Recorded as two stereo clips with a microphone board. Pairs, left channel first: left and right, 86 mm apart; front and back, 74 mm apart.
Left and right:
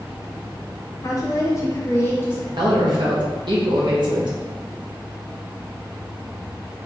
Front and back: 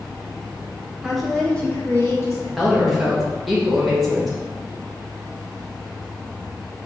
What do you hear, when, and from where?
1.0 s a woman speaking: 105° left, 0.8 m; by 2.5 s 35° left, 1.0 m
2.6 s a woman speaking: 90° right, 0.8 m